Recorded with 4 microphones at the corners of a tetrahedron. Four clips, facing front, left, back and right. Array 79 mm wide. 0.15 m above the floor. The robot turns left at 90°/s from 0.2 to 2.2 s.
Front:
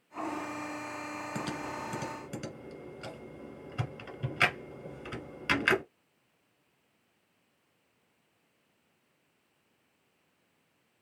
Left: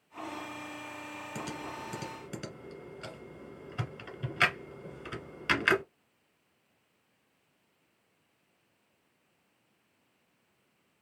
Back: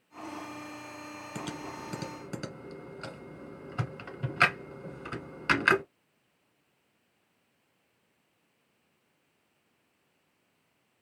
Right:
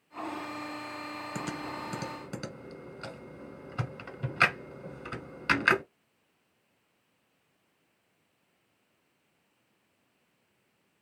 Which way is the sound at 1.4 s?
65° right.